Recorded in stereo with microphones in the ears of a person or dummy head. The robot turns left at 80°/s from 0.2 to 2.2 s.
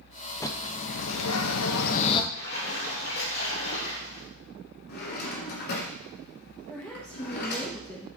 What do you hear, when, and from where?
0.4 s a bird: 170° left, 0.6 m; by 2.2 s 25° left, 0.6 m
2.3 s a splash: 60° left (ahead or behind), 5 m
4.9 s a drawer: 60° left (ahead or behind), 1.7 m
6.7 s a woman speaking: 15° left (ahead or behind), 1.7 m